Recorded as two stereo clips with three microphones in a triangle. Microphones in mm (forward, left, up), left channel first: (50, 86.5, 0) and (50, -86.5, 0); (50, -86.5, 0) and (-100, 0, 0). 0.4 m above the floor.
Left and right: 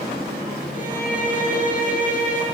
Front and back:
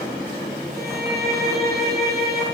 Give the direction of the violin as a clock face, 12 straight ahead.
8 o'clock.